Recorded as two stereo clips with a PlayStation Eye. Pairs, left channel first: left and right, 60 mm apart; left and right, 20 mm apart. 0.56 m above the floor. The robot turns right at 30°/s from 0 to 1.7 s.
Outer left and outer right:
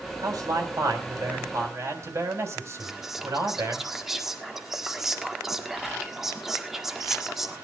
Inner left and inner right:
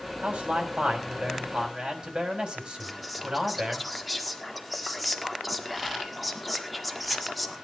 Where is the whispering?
5° right (ahead or behind), 1.4 m.